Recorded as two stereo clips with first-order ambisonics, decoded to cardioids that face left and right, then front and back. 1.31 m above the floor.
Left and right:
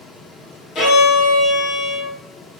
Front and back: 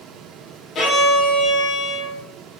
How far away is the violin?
About 1.5 m.